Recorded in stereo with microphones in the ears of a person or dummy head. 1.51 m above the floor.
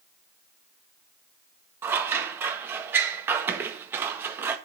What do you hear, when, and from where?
1.8 s scissors: 15° right (ahead or behind), 1.5 m